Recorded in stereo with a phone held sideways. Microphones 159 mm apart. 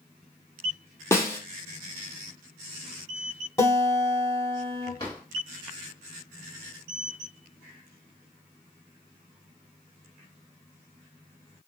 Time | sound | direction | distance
1.1 | a snare drum | 15° left (ahead or behind) | 0.8 m
3.6 | a guitar | 15° left (ahead or behind) | 2.5 m
5.0 | a drawer | 30° left (ahead or behind) | 2 m